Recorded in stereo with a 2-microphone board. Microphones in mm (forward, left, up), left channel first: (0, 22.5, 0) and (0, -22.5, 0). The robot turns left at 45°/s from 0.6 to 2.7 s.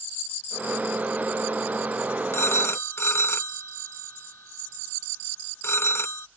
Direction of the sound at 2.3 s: 65° left (ahead or behind).